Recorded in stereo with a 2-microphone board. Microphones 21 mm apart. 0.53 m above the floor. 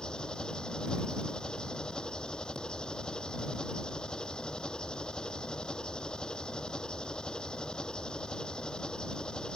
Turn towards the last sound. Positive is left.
turn(degrees=45)  # may be behind; listen again after turning